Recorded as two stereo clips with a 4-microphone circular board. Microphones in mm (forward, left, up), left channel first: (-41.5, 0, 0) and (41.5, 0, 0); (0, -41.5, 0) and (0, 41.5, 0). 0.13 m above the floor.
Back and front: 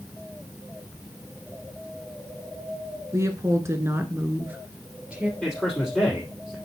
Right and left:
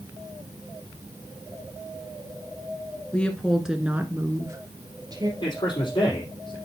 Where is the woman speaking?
25° right, 1.8 m; by 5.3 s 75° left, 3 m.